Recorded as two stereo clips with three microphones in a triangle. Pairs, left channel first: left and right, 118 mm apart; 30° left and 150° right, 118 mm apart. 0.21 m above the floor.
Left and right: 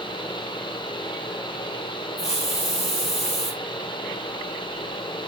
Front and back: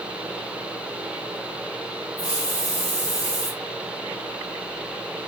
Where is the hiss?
85° left, 1.8 m.